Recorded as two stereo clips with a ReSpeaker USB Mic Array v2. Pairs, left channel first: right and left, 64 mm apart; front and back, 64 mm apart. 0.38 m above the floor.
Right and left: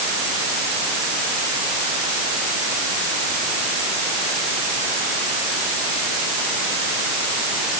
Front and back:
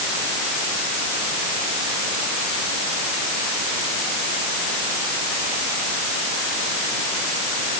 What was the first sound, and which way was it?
Only background noise.